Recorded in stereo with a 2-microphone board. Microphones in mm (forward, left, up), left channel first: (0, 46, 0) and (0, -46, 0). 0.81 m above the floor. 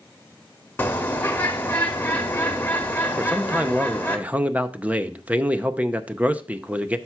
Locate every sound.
0.8 s a bird: 20° left (ahead or behind), 1.2 m
3.2 s a man speaking: 15° right (ahead or behind), 0.6 m